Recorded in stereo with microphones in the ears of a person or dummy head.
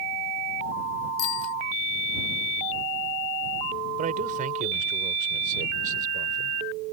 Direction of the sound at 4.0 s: 50° right (ahead or behind).